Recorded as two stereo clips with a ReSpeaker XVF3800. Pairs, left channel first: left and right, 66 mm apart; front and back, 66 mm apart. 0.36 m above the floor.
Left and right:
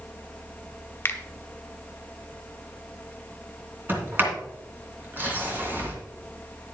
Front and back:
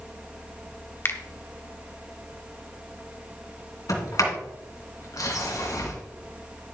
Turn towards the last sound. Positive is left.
turn(degrees=-30)